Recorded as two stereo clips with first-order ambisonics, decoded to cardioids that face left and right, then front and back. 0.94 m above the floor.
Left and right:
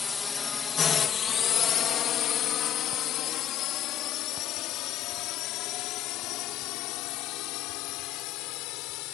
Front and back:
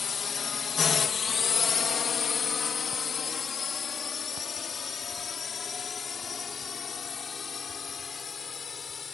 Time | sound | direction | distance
0.0 | a drone | 40° left | ?